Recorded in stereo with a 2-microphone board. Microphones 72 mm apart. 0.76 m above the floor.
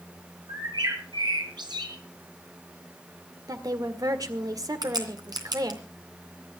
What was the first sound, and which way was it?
A bird, 75° right (ahead or behind).